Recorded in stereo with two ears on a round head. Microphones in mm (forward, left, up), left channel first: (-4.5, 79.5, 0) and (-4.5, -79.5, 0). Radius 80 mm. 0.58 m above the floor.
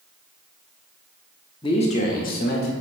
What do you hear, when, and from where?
1.6 s a man speaking: 25° left (ahead or behind), 1.0 m; by 2.7 s 55° left (ahead or behind), 1.9 m